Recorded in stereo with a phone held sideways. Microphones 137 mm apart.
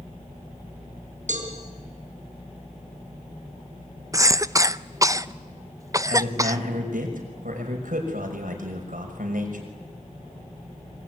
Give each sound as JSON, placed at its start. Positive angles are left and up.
{"t": 1.3, "sound": "a cowbell", "side_deg": -65, "distance_m": 4.5}
{"t": 4.1, "sound": "a cough", "side_deg": -25, "distance_m": 0.7}
{"t": 6.1, "sound": "a man speaking", "side_deg": -85, "distance_m": 6.0}